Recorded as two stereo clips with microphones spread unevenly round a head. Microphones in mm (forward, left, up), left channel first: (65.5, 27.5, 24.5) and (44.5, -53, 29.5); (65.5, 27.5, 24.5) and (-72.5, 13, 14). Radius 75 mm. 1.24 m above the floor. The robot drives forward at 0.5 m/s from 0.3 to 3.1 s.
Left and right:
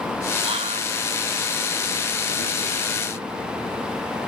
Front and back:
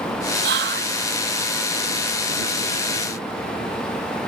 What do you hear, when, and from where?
0.4 s whispering: 155° right; by 1.0 s 160° right